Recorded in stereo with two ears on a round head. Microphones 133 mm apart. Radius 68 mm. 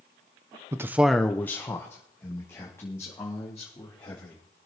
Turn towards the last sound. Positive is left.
turn(degrees=20)  # may be behind; listen again after turning